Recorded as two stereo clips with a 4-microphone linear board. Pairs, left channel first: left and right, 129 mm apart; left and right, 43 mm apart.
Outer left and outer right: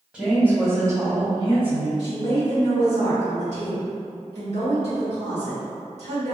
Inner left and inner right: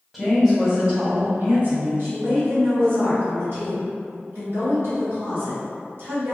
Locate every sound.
0.1 s a woman speaking: 10° right (ahead or behind), 1.5 m; by 1.9 s 50° right (ahead or behind), 1.3 m
2.0 s a woman speaking: 60° right (ahead or behind), 1.5 m